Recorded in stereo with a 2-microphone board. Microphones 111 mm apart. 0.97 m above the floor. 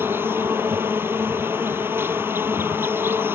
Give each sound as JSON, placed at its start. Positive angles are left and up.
{"t": 0.0, "sound": "an insect", "side_deg": -20}